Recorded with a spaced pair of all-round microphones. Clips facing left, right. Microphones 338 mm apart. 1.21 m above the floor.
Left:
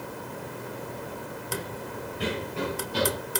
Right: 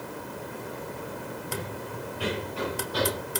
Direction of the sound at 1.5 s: 20° left (ahead or behind).